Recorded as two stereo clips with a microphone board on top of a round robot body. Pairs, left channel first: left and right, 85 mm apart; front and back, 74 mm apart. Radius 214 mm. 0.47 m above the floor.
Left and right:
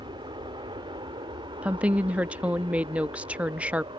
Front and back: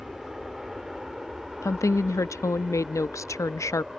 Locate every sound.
0.0 s an aircraft: 95° right
1.6 s a woman speaking: 20° right